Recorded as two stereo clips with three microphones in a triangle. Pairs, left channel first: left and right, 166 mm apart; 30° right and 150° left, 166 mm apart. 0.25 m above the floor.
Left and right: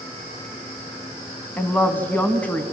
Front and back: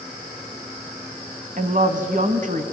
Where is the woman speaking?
165° left, 1.6 m.